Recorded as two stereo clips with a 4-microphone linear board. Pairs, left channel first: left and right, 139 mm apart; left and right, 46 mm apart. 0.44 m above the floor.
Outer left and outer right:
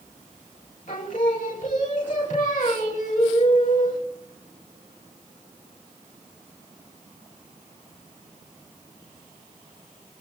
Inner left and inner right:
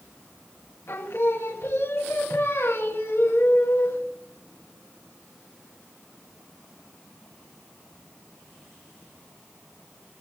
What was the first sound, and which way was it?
Singing, 70° left (ahead or behind).